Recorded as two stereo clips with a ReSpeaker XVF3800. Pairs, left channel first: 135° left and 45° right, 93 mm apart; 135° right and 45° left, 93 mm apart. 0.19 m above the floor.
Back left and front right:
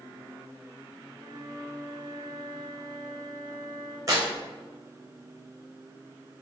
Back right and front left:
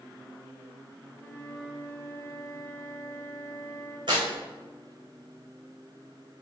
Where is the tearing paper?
10° left, 3 m.